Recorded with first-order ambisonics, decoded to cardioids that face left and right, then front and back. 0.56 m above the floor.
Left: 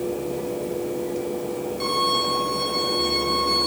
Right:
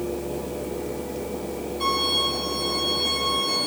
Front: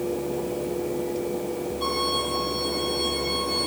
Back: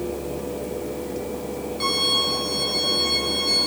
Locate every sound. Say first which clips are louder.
1.8 s a violin: even, back 5 dB; 160° left, 5.5 m